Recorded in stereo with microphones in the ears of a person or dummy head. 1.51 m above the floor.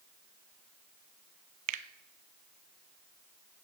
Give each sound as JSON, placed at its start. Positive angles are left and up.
{"t": 1.7, "sound": "a finger snap", "side_deg": -45, "distance_m": 0.7}